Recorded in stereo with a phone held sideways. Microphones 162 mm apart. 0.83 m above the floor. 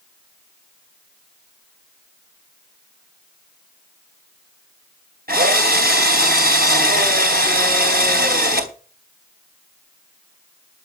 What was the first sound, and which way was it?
A drill, 70° right (ahead or behind).